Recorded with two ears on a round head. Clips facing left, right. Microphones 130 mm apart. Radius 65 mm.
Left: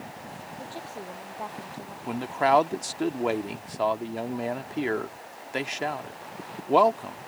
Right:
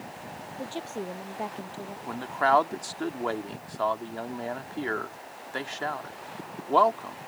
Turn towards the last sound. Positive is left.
turn(degrees=20)  # may be behind; listen again after turning